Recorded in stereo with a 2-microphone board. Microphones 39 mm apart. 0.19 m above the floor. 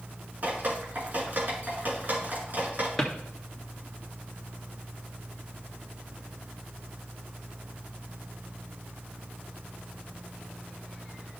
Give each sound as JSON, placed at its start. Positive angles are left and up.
{"t": 0.4, "sound": "dripping", "side_deg": -50, "distance_m": 3.0}
{"t": 3.0, "sound": "a drawer", "side_deg": 10, "distance_m": 1.9}